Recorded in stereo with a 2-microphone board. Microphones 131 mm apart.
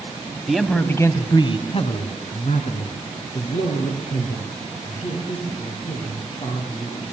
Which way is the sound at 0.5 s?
5° right (ahead or behind).